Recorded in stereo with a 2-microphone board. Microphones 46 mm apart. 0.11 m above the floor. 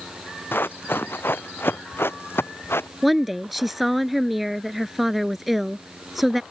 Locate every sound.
0.5 s running footsteps: 50° left (ahead or behind); by 2.9 s 60° left (ahead or behind)
3.0 s a woman speaking: 5° right (ahead or behind)